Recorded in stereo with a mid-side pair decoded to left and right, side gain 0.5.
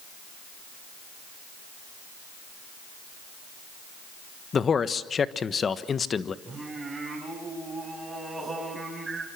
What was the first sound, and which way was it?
A man speaking, 40° left.